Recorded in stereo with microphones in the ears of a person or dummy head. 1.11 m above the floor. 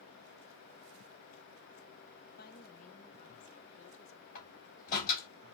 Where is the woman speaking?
40° left (ahead or behind), 0.9 m; by 4.2 s 35° left (ahead or behind), 1.7 m.